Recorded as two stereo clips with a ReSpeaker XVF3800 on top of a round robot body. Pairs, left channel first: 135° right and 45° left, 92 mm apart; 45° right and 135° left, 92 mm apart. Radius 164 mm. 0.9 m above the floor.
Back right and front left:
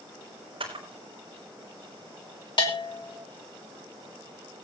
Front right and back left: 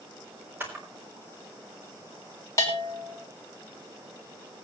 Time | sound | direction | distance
0.6 | a camera shutter | 65° left | 4 m
2.6 | a bell | 100° right | 4 m